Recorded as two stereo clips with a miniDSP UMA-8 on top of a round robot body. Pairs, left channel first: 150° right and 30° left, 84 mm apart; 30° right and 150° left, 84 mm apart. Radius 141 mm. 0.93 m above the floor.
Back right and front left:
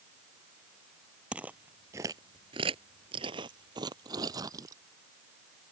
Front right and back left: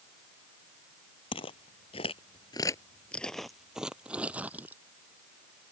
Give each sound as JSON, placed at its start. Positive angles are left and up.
{"t": 1.3, "sound": "footsteps", "azimuth_deg": -50}